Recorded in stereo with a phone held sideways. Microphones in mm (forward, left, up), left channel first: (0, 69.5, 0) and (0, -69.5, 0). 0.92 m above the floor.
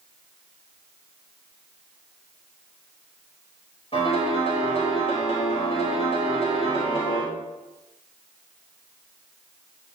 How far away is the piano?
About 5 m.